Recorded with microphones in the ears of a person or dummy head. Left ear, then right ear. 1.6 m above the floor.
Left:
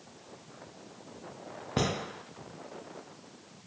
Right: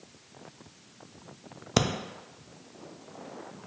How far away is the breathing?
About 0.6 m.